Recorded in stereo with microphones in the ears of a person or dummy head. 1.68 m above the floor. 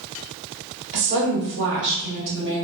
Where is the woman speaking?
60° right (ahead or behind), 1.2 m.